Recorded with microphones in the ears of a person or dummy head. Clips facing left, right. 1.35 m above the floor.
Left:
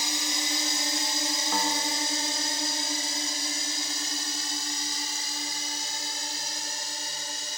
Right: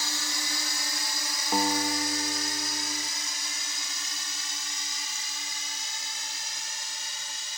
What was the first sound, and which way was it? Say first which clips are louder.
A drone: left 4 dB; 20° left (ahead or behind).